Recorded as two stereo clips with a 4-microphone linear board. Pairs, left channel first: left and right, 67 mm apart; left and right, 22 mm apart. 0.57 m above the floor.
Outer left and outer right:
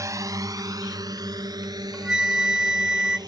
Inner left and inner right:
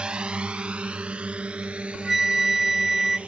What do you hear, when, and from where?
0.0 s a drone: 50° right (ahead or behind); by 3.3 s 80° right
1.6 s a flute: 10° right (ahead or behind)